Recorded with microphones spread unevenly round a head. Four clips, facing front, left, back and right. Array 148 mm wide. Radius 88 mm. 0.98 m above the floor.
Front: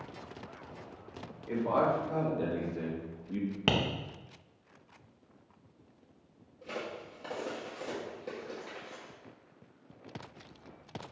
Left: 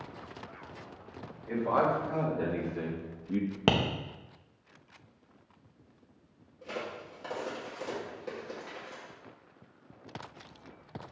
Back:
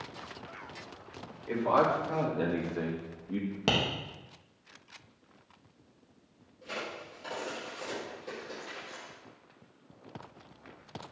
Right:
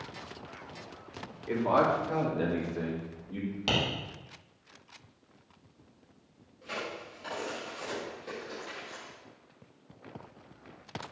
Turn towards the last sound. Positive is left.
turn(degrees=20)